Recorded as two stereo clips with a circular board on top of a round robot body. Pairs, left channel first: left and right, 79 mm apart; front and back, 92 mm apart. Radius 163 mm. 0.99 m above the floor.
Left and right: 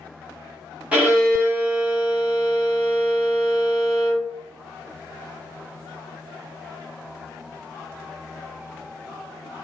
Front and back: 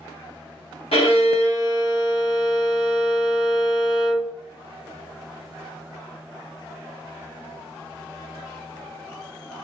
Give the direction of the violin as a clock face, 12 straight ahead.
1 o'clock.